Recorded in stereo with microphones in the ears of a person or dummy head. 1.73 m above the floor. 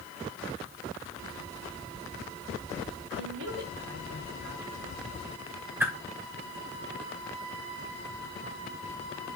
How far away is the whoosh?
About 1.8 m.